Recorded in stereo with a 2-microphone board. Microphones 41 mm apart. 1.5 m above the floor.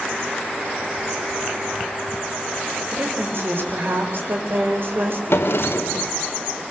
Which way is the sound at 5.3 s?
65° left (ahead or behind).